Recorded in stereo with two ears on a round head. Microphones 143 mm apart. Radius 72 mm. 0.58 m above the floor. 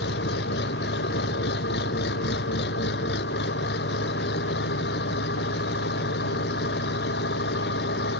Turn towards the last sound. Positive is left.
turn(degrees=75)  # may be behind; listen again after turning